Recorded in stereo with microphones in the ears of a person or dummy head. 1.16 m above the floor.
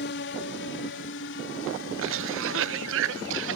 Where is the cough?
70° right (ahead or behind).